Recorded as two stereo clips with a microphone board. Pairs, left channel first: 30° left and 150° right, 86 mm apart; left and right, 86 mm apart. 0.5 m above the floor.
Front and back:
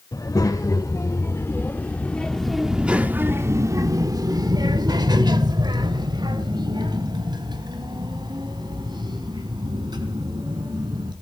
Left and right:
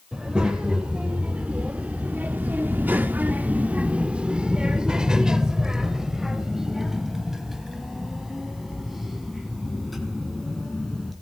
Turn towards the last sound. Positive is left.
turn(degrees=180)